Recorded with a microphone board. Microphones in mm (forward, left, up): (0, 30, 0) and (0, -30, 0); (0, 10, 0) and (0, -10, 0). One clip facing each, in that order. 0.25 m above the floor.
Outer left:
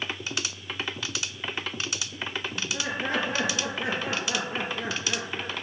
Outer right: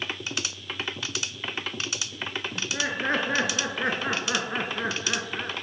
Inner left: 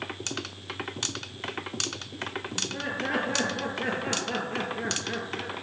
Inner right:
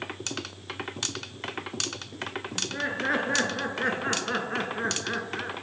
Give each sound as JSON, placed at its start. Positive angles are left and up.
{"t": 2.5, "sound": "laughter", "side_deg": -40, "distance_m": 4.0}